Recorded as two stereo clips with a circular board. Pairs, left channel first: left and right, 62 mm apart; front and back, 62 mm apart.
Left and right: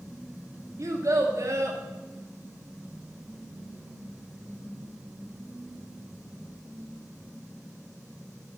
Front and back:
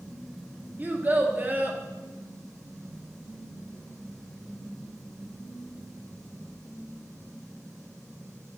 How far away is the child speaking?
About 2.5 m.